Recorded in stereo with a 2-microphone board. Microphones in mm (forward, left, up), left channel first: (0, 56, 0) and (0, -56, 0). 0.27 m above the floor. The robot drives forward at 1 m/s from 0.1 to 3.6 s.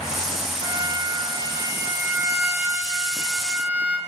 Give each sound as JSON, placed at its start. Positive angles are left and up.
{"t": 0.6, "sound": "a violin", "side_deg": -40, "distance_m": 1.1}